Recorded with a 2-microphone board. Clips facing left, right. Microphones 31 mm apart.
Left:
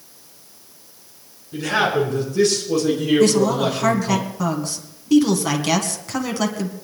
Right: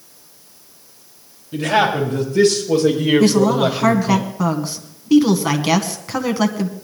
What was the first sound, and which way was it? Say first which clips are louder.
A man speaking: right 3 dB; 40° right (ahead or behind).